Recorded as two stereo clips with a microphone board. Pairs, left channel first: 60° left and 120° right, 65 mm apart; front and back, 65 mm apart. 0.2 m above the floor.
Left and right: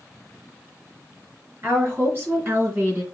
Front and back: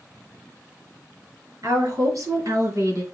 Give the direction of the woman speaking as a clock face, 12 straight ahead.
6 o'clock.